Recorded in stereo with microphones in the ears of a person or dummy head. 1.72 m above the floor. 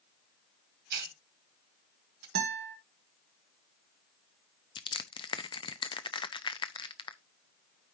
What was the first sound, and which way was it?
A hiss, 55° right (ahead or behind).